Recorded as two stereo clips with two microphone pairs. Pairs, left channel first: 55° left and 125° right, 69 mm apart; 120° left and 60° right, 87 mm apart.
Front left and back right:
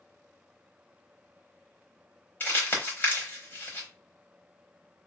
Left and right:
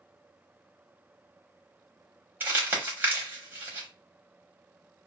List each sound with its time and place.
2.4 s crumpling: 5° left, 1.0 m